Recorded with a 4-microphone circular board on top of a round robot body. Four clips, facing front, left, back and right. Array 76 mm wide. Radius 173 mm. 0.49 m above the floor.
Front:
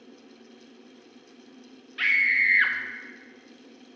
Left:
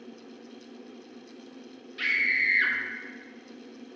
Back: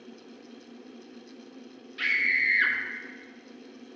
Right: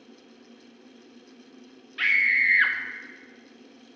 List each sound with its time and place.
2.0 s a scream: 50° right, 1.2 m